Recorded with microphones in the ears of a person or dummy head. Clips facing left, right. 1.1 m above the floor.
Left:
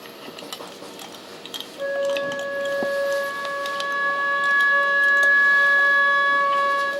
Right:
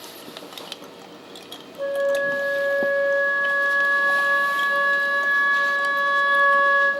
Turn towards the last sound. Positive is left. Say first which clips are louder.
# right 1 dB
turn(degrees=30)  # may be behind; listen again after turning